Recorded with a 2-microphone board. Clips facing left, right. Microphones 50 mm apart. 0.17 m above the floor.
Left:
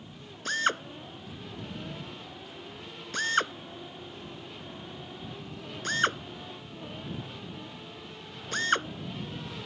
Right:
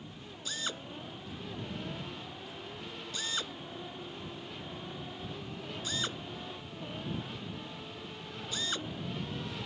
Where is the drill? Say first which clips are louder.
Left 11 dB; 60° left (ahead or behind).